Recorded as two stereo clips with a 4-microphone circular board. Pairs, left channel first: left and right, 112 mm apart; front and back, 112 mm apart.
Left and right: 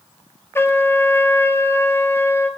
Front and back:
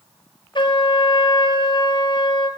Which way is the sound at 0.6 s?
25° left.